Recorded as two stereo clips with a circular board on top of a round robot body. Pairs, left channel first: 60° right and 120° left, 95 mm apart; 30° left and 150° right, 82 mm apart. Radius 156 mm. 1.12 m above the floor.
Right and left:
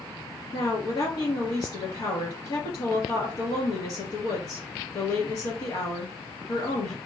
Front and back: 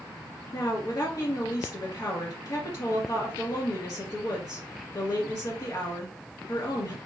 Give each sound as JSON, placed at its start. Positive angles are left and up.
{"t": 0.5, "sound": "a woman speaking", "azimuth_deg": -20, "distance_m": 2.5}